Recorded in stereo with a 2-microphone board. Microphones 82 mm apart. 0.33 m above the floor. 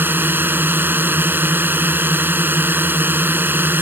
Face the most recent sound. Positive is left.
turn(degrees=-25)  # may be behind; listen again after turning